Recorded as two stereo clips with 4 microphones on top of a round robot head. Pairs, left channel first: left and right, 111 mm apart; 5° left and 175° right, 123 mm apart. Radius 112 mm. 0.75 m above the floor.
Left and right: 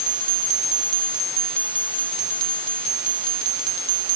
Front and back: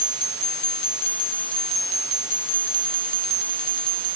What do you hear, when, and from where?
Only background noise.